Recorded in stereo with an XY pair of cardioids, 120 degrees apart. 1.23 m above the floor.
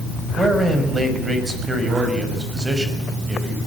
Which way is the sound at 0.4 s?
20° right.